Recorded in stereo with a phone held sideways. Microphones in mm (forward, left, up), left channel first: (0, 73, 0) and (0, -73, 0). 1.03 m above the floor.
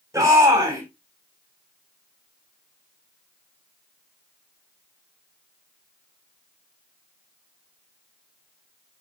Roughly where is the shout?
Right.